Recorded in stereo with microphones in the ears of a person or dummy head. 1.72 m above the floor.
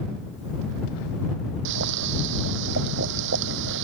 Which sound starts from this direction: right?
Boiling, at 1.6 s.